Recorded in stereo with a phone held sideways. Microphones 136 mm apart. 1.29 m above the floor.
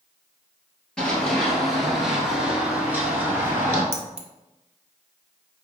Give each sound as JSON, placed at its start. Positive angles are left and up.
{"t": 1.0, "sound": "running footsteps", "side_deg": 5, "distance_m": 1.6}
{"t": 3.9, "sound": "keys jangling", "side_deg": -55, "distance_m": 0.6}